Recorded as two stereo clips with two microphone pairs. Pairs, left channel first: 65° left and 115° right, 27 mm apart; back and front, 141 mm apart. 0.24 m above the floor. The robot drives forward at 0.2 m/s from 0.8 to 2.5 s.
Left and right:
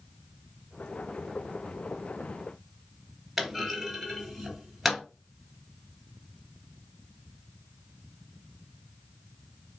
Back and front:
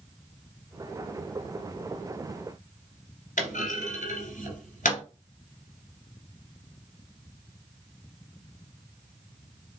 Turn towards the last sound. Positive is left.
turn(degrees=160)